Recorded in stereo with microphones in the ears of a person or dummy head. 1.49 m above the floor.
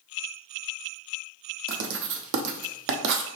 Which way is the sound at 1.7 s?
60° right (ahead or behind).